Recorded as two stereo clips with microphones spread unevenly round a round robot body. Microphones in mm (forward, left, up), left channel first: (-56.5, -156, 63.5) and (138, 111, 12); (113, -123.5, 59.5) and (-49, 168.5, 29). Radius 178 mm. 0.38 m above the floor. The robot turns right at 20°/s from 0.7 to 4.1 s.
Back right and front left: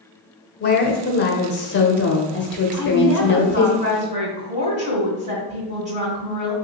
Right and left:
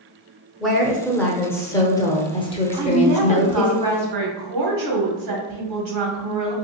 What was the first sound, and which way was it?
A woman speaking, 160° right.